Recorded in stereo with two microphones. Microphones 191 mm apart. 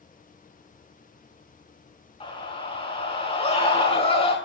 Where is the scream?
30° left (ahead or behind), 5.5 m.